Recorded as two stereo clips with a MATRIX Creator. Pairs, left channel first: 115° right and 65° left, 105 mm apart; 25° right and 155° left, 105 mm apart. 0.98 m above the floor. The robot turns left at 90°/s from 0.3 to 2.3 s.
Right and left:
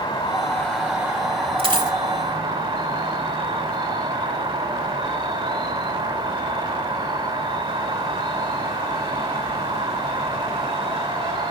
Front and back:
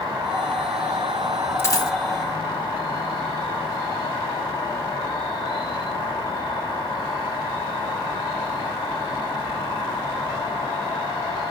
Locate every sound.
0.0 s an insect: 160° right, 4.5 m; by 11.5 s 20° left, 4.5 m
1.6 s a dropped coin: 45° left, 2 m; by 2.0 s 10° left, 2 m